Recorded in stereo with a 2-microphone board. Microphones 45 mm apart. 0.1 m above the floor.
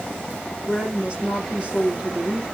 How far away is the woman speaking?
About 2.5 m.